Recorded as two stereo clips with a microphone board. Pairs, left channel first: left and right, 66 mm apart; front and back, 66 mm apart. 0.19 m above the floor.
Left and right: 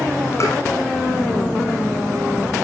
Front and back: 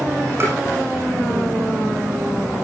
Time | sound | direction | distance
0.4 | tapping | 130° left | 9.5 m